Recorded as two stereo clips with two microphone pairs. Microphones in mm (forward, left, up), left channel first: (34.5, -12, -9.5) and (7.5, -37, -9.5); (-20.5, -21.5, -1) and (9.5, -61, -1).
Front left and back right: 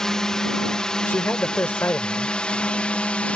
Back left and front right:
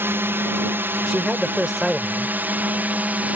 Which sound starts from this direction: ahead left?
A man speaking, at 1.1 s.